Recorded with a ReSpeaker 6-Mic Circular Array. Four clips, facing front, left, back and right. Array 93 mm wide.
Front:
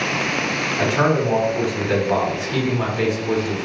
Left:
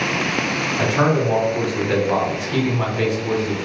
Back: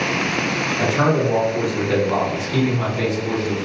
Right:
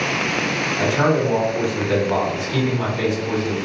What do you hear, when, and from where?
0.8 s a man speaking: 45° left, 1.6 m